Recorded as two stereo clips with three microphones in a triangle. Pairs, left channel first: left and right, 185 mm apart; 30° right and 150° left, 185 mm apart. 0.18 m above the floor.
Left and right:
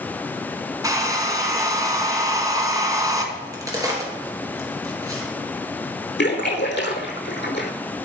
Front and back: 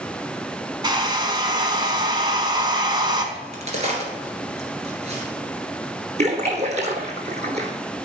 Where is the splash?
100° left, 1.2 m.